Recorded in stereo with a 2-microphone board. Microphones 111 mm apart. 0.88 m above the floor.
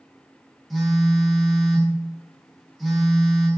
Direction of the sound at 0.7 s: Centre (ahead or behind).